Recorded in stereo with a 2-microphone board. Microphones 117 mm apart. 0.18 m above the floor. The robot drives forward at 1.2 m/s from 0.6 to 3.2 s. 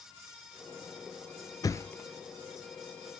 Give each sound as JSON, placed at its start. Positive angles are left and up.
{"t": 1.6, "sound": "a thud", "side_deg": 35, "distance_m": 0.5}